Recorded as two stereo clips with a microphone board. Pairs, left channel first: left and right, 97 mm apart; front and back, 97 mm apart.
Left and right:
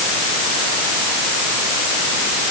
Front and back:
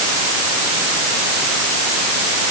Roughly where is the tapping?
I don't hear tapping.